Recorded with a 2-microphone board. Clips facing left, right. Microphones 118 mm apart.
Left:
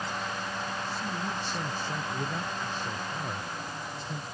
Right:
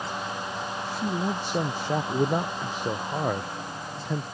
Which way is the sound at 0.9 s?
75° right (ahead or behind).